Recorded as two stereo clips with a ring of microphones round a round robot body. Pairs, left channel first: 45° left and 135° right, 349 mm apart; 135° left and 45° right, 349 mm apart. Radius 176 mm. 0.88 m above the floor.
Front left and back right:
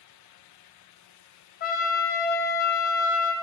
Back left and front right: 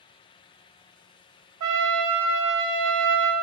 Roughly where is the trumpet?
Ahead.